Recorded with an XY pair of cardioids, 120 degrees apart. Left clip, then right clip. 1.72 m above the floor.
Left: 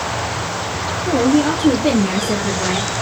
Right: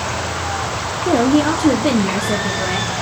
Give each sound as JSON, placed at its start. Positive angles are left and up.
{"t": 1.0, "sound": "a woman speaking", "azimuth_deg": -35, "distance_m": 1.0}